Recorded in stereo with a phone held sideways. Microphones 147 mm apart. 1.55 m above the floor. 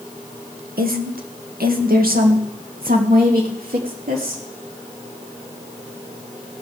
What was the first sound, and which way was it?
A woman speaking, 90° right.